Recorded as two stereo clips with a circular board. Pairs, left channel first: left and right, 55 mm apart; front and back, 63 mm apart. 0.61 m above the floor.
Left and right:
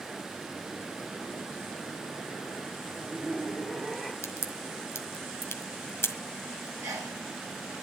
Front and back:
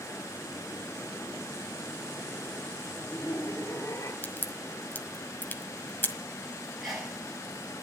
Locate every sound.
2.8 s laughter: 10° left, 1.3 m; by 4.1 s straight ahead, 2 m
4.2 s a crack: 55° left, 1.5 m
6.8 s a sneeze: 90° right, 4.5 m